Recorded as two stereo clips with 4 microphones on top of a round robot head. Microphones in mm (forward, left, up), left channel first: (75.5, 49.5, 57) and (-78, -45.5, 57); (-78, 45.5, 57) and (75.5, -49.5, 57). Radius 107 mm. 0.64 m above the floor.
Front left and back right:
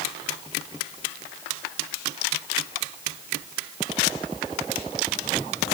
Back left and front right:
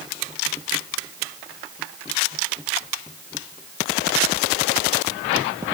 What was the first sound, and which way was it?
Only background noise.